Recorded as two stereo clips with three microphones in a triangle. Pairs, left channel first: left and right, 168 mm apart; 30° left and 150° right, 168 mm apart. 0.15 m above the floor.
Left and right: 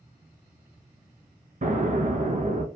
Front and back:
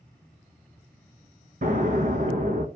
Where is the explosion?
120° right, 0.6 m.